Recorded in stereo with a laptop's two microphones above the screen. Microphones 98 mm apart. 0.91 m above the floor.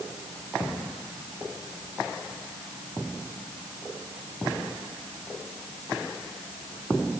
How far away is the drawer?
No drawer in this recording.